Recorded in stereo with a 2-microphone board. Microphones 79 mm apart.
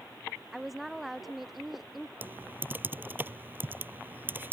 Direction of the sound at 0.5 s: Centre (ahead or behind).